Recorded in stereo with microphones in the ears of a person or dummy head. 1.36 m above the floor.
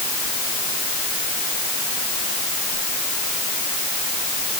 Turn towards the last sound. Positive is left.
No sound to turn to.